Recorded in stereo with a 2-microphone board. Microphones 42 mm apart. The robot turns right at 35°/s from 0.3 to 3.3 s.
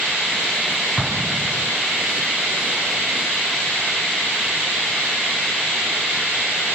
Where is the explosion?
10° left (ahead or behind); by 1.7 s 15° right (ahead or behind).